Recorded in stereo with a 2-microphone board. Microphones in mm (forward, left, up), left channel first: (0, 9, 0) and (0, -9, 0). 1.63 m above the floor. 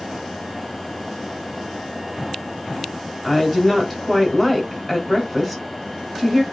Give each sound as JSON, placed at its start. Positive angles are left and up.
{"t": 3.2, "sound": "a woman speaking", "side_deg": -5, "distance_m": 1.3}